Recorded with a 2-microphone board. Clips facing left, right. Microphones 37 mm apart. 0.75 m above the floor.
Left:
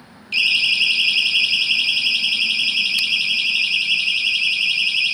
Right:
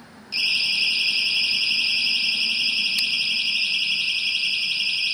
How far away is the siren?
About 6 m.